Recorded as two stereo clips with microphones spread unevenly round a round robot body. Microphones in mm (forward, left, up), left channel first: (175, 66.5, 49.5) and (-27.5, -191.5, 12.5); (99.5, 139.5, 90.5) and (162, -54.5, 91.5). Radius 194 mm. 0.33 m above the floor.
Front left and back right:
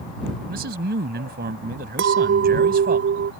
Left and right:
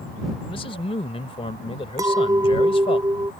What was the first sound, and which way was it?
A man speaking, 175° left.